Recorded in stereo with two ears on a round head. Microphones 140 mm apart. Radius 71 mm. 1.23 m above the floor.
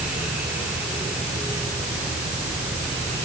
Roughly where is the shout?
I don't hear a shout.